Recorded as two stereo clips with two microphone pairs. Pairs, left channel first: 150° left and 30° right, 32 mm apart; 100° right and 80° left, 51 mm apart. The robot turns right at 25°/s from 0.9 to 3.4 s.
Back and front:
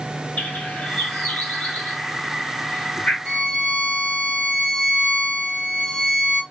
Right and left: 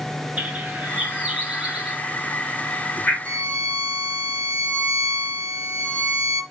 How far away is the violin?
About 2 m.